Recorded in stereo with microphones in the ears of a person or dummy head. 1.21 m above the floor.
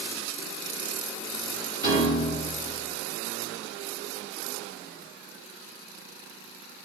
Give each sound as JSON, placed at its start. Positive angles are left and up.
{"t": 1.8, "sound": "a piano", "side_deg": 30, "distance_m": 2.0}